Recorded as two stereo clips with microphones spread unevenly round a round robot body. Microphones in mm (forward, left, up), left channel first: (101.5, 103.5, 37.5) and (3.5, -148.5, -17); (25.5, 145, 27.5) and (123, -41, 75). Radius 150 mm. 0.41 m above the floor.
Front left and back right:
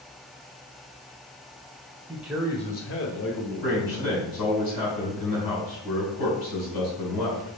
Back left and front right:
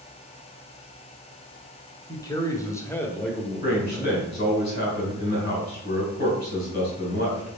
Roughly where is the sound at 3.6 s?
Left.